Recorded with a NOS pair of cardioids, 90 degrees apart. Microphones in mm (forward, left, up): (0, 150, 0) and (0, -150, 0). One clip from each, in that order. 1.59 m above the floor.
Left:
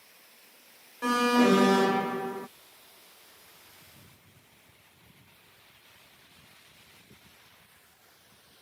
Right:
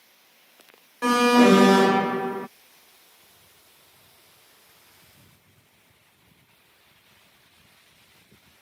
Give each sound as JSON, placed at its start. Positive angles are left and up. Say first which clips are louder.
{"t": 1.0, "sound": "an alarm", "louder": "right 6 dB", "azimuth_deg": -30}